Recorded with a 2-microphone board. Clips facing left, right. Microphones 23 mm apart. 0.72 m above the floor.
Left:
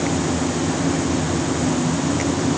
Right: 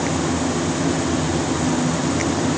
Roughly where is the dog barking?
I don't hear a dog barking.